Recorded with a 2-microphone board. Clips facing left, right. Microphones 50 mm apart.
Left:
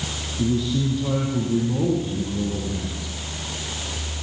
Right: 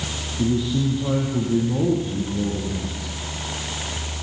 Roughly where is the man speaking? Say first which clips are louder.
Right 1 dB; centre.